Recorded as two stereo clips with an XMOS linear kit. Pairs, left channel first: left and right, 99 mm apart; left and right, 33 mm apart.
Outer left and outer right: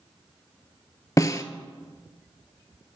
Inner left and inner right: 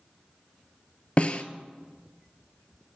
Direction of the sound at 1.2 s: 35° left (ahead or behind).